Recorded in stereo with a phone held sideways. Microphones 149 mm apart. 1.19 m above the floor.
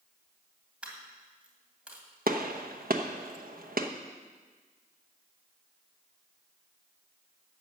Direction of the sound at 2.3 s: 75° right (ahead or behind).